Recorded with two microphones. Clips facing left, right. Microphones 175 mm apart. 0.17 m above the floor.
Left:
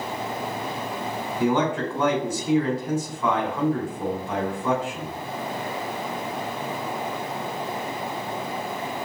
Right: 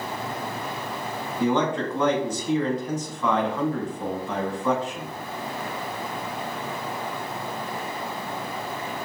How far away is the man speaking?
About 1.4 m.